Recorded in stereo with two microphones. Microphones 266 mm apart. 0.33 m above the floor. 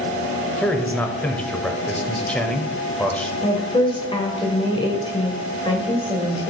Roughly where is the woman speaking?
Centre.